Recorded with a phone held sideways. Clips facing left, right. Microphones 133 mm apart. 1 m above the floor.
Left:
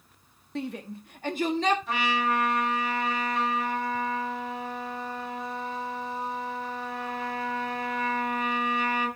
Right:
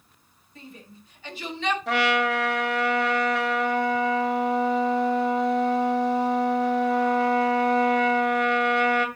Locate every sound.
0.6 s a shout: 80° left, 1.5 m; by 1.8 s 35° left (ahead or behind), 1.7 m
1.9 s a trumpet: 85° right, 2.5 m